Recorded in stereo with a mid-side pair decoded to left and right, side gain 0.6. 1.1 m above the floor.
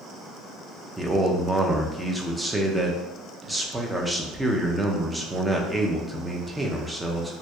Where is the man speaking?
10° right, 0.5 m.